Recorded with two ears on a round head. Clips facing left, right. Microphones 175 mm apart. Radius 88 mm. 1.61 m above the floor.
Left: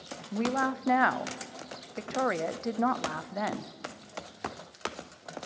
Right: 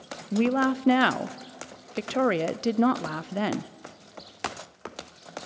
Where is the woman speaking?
35° right (ahead or behind), 0.6 m.